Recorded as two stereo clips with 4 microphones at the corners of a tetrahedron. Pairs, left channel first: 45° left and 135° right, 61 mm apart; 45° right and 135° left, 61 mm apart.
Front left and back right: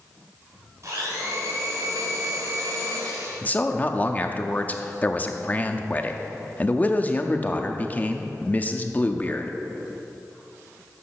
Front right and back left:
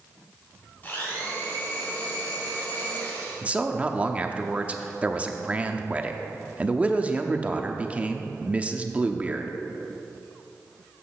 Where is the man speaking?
85° left, 0.7 m.